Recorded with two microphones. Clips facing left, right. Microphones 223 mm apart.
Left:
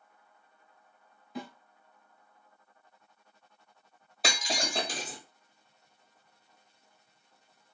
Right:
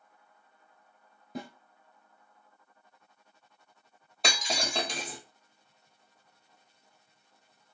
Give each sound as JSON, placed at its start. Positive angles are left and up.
{"t": 1.4, "sound": "a snare drum", "side_deg": -50, "distance_m": 0.9}
{"t": 4.2, "sound": "breaking glass", "side_deg": 5, "distance_m": 1.5}